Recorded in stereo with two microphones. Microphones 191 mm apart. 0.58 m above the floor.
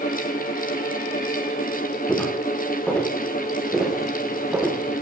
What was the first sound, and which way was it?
Footsteps, 10° left (ahead or behind).